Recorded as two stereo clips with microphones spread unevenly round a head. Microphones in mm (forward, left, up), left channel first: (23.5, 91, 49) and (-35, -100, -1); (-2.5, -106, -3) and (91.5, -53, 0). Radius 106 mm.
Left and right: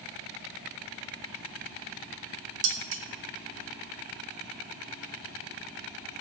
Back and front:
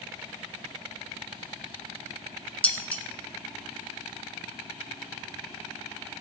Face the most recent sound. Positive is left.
turn(degrees=-75)